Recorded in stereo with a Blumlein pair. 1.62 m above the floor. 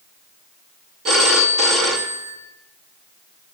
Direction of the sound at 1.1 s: 30° right.